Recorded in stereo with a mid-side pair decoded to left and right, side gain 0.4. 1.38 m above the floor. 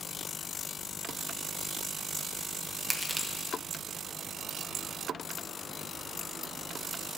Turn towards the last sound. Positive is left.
turn(degrees=-10)